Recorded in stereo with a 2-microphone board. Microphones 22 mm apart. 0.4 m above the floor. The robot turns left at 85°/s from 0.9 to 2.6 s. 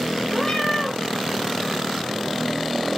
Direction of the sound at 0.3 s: 10° left (ahead or behind).